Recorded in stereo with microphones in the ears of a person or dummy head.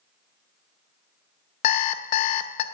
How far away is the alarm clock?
About 0.5 m.